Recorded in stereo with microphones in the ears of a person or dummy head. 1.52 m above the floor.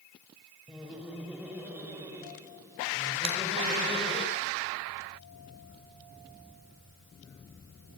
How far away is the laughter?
About 7.5 m.